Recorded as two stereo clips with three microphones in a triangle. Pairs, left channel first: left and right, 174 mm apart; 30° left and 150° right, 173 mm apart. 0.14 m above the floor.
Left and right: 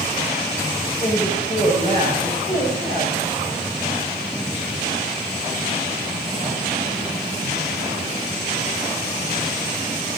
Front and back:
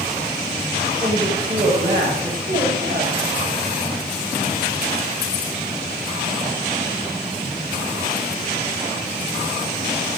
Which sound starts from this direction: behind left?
A man speaking, at 1.0 s.